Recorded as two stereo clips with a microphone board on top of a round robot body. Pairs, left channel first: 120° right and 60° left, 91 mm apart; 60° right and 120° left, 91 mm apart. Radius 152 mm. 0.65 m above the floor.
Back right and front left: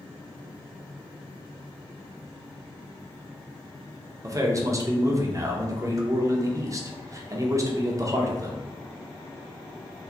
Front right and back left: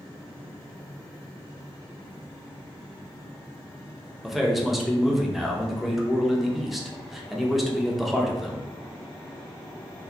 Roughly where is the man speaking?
Ahead left.